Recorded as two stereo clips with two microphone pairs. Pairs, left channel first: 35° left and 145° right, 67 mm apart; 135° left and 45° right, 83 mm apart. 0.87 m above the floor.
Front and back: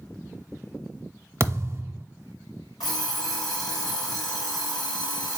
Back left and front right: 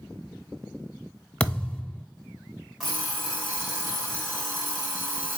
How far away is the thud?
About 0.8 m.